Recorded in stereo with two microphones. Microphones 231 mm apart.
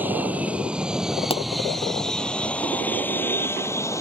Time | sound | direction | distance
0.0 | an aircraft | 5° right (ahead or behind) | ?
1.3 | a pop | 25° left (ahead or behind) | ?